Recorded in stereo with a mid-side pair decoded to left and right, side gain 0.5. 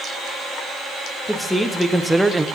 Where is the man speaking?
10° left, 2 m; by 2.5 s 15° right, 0.9 m.